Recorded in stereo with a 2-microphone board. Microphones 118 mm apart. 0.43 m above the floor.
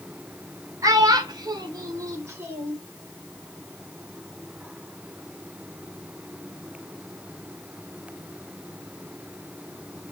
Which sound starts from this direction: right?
A child speaking, at 0.8 s.